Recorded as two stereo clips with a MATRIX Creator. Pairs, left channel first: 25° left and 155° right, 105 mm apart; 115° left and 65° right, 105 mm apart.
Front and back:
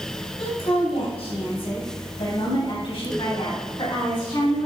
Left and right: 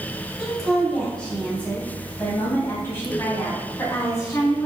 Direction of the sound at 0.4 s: 25° left.